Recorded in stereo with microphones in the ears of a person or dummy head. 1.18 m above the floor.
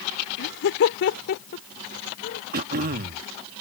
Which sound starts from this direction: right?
Throat clearing, at 2.5 s.